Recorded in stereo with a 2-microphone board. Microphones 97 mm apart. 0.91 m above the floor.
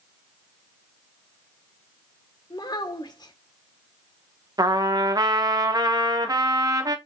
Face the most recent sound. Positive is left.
turn(degrees=-45)  # may be behind; listen again after turning